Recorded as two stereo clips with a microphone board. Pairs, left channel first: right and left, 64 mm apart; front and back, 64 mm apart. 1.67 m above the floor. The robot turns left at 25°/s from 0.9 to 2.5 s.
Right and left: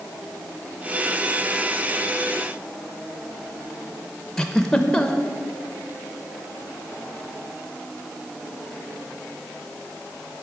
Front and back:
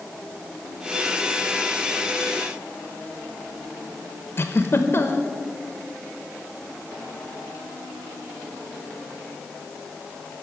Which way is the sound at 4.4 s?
15° right.